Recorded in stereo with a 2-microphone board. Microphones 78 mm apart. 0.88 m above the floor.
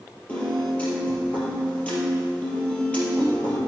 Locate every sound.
0.3 s a piano: 15° left (ahead or behind), 3.5 m